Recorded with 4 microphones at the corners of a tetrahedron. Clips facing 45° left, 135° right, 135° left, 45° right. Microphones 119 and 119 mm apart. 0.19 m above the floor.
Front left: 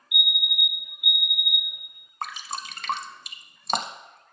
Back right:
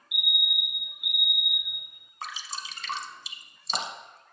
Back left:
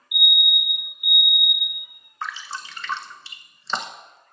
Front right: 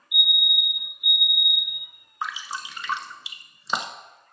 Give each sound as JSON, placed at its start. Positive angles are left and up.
{"t": 0.1, "sound": "a fire alarm", "azimuth_deg": -175, "distance_m": 2.5}
{"t": 2.2, "sound": "dripping", "azimuth_deg": 30, "distance_m": 0.7}